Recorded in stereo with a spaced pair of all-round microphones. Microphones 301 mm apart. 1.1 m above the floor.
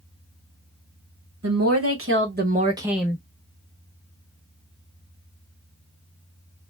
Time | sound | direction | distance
1.4 | a woman speaking | 55° right (ahead or behind) | 1.3 m